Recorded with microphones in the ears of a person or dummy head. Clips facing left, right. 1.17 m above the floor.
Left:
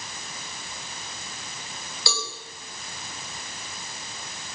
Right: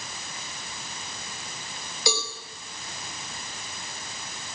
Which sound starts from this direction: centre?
A cowbell, at 2.1 s.